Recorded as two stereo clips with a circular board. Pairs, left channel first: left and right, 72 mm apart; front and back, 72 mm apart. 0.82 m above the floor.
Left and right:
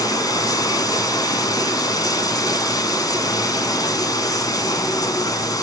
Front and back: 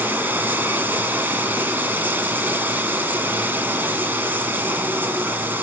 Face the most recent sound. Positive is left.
turn(degrees=120)